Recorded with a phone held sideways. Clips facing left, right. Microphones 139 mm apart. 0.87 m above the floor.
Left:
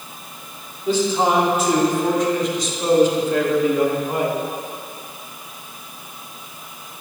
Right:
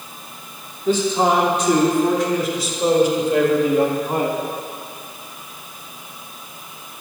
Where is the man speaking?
10° left (ahead or behind), 2.5 m; by 4.4 s 35° right (ahead or behind), 1.5 m.